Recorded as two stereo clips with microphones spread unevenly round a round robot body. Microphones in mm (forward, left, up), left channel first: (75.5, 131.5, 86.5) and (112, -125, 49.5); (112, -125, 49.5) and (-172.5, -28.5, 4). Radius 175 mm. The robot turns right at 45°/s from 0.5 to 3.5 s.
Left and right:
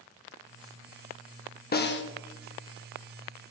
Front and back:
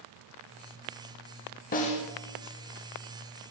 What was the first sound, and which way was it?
A snare drum, 45° left.